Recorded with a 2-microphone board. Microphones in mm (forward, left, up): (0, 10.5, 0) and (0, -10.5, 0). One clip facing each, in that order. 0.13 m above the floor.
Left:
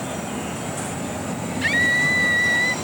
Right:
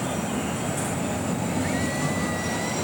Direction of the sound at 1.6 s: 60° left (ahead or behind).